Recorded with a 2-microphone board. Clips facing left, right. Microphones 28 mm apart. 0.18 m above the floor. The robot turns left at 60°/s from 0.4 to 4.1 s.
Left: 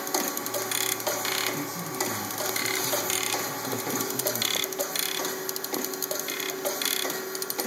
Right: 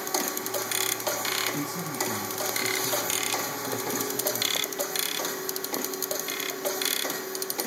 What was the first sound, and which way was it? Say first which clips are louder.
A man speaking: right 1 dB; 60° right.